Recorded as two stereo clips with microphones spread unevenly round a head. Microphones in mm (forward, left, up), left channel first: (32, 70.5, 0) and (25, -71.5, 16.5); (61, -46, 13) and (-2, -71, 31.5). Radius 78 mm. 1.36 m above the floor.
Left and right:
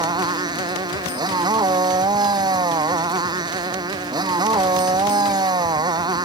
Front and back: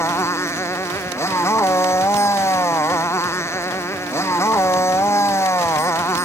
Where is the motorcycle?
30° right.